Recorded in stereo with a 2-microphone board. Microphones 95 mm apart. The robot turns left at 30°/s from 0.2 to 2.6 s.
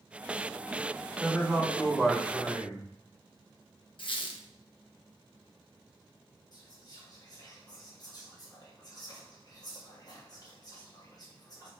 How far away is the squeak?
About 0.6 m.